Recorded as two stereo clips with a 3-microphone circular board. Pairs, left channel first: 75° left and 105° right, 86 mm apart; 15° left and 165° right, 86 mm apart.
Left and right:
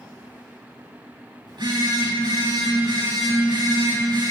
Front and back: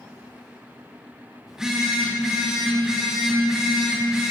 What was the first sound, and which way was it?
A phone buzzing, 80° right.